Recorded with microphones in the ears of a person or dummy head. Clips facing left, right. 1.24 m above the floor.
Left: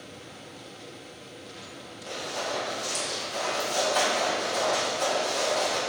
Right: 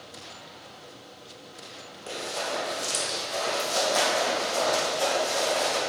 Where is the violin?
No violin in this recording.